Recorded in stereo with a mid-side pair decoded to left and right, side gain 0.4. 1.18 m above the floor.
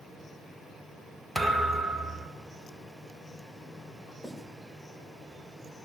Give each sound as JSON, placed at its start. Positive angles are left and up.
{"t": 1.4, "sound": "a thud", "azimuth_deg": -5, "distance_m": 1.9}
{"t": 4.2, "sound": "writing", "azimuth_deg": 15, "distance_m": 4.5}